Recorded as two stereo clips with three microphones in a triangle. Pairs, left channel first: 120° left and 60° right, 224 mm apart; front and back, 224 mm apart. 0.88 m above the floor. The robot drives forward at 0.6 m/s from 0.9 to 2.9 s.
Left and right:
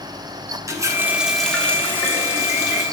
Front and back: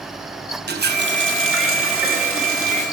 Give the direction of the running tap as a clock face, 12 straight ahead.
4 o'clock.